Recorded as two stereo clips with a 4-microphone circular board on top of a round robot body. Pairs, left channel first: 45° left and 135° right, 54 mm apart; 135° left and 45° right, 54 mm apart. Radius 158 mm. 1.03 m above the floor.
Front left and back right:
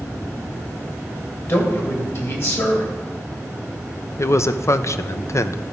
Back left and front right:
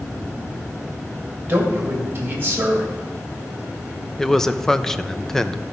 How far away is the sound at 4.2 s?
About 0.7 m.